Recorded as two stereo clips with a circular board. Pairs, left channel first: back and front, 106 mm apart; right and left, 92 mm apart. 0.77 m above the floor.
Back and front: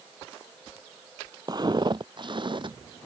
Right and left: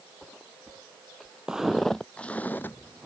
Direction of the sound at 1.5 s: 10° left.